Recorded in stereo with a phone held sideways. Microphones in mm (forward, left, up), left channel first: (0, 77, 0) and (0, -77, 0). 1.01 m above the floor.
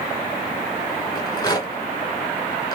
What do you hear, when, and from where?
1.1 s a rattle: 25° left (ahead or behind), 2 m